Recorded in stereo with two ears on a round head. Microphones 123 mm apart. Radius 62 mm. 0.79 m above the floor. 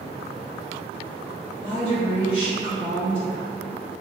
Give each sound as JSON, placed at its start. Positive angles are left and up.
{"t": 1.6, "sound": "a woman speaking", "side_deg": 40, "distance_m": 1.1}